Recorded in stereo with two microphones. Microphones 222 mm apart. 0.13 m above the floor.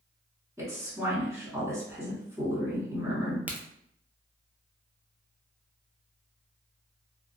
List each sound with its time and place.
0.6 s a woman speaking: 10° right (ahead or behind), 1.3 m
3.5 s a crack: 5° right (ahead or behind), 0.5 m